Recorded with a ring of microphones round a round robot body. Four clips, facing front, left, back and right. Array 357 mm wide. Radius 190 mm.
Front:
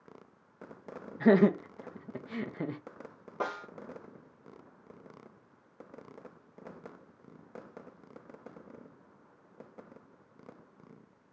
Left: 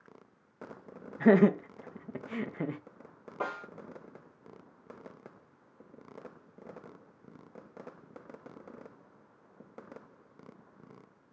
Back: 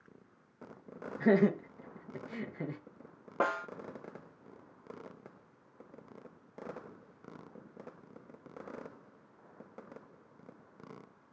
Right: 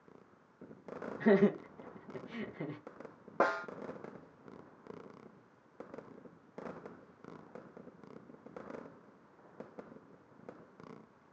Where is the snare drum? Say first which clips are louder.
Right 5 dB, back 4 dB; 120° right, 0.7 m.